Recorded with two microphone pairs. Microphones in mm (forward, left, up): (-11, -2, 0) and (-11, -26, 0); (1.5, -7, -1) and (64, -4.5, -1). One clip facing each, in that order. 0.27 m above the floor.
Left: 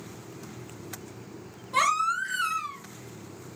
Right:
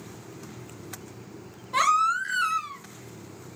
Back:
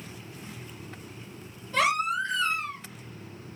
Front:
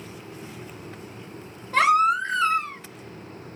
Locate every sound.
1.7 s a baby crying: 15° right, 1.7 m